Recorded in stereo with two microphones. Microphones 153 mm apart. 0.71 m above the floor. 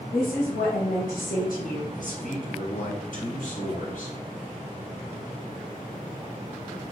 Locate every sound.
0.1 s a woman speaking: 75° left (ahead or behind), 4 m
1.9 s a man speaking: 70° left (ahead or behind), 3.5 m